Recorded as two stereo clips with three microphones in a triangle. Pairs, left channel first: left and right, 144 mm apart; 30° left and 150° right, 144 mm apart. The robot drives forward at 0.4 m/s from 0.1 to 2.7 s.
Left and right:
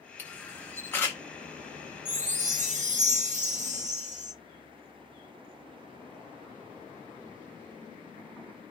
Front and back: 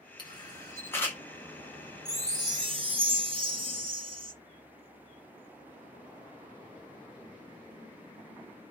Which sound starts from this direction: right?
A chime, at 2.0 s.